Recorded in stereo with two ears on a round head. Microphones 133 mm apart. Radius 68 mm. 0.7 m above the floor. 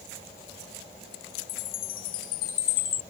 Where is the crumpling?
I don't hear crumpling.